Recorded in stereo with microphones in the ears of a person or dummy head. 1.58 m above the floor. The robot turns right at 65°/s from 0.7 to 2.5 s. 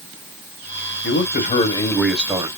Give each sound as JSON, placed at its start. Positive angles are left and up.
{"t": 1.0, "sound": "a man speaking", "azimuth_deg": 110, "distance_m": 1.0}